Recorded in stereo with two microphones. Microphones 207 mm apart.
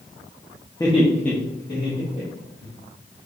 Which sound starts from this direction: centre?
Laughter, at 0.8 s.